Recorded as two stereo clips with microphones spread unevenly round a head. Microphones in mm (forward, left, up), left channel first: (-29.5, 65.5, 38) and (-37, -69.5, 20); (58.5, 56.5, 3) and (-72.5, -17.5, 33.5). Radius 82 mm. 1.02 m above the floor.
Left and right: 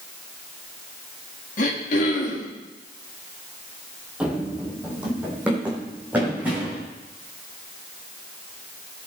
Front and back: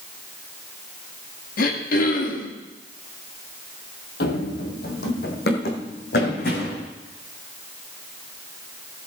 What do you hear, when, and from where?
1.6 s throat clearing: 50° left, 2 m
4.2 s running footsteps: 5° right, 1.8 m; by 6.8 s 10° right, 4 m